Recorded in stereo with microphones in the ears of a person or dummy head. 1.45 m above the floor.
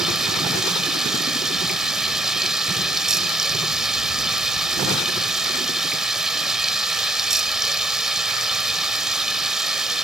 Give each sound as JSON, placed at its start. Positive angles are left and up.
{"t": 0.0, "sound": "running water", "side_deg": 0}